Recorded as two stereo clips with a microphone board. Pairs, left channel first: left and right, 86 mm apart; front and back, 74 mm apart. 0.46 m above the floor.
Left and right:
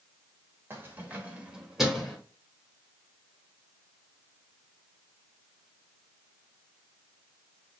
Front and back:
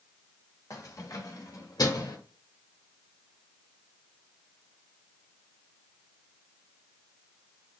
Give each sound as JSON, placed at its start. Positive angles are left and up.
{"t": 0.7, "sound": "keys jangling", "azimuth_deg": -35, "distance_m": 1.2}